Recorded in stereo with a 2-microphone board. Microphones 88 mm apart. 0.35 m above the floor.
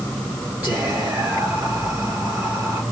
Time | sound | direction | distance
0.6 | whispering | 20° right (ahead or behind) | 1.4 m